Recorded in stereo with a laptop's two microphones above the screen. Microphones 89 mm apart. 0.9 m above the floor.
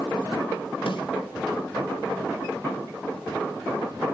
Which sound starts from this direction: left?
A snare drum, at 0.9 s.